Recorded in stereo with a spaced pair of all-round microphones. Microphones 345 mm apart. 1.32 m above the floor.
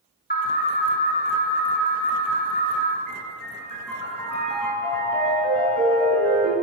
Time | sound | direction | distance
0.3 | an alarm | 25° left (ahead or behind) | 5 m
3.1 | a piano | 60° right (ahead or behind) | 9 m